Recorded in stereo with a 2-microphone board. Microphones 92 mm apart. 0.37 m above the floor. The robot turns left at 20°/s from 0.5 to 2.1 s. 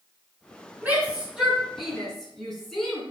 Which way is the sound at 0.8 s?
20° right (ahead or behind).